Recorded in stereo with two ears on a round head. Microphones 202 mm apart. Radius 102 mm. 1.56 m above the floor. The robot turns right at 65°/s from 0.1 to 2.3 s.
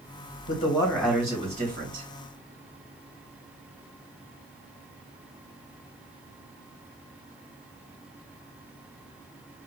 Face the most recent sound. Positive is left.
turn(degrees=-100)